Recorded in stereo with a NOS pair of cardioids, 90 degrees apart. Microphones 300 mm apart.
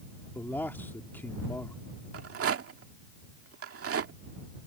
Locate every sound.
0.3 s a man speaking: 5° left
2.1 s a rattle: 50° right